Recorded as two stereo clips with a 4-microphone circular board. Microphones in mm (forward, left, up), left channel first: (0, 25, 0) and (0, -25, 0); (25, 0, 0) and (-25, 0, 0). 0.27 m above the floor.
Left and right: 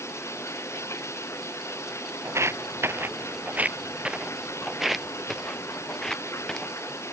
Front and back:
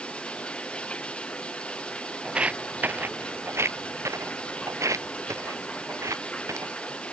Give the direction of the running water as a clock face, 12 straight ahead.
10 o'clock.